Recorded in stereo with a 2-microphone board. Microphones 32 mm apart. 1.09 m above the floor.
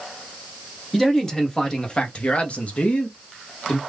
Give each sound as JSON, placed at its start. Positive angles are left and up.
{"t": 0.9, "sound": "a man speaking", "side_deg": 10, "distance_m": 1.3}